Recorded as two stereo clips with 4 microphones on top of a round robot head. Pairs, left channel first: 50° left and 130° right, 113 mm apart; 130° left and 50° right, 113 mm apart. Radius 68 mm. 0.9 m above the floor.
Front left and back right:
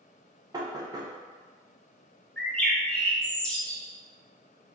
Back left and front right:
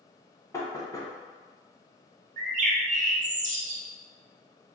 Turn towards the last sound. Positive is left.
turn(degrees=-35)